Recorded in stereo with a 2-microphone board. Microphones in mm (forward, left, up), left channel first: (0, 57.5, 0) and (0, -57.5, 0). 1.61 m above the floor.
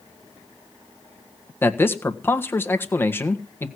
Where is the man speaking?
20° left (ahead or behind), 1.6 m.